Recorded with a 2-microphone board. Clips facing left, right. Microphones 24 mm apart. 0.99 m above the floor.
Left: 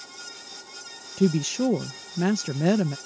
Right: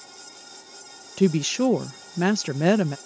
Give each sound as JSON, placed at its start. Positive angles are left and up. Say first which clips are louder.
{"t": 1.2, "sound": "a woman speaking", "louder": "right 2 dB", "side_deg": -25}